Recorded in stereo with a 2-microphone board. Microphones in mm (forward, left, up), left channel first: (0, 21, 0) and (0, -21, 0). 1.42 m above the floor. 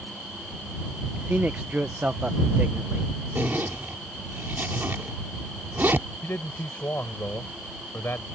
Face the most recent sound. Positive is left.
turn(degrees=65)  # may be behind; listen again after turning